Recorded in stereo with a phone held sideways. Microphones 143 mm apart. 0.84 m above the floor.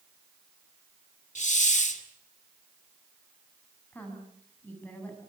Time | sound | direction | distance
1.4 | a hiss | 60° left (ahead or behind) | 2 m
3.9 | a woman speaking | 15° left (ahead or behind) | 8.5 m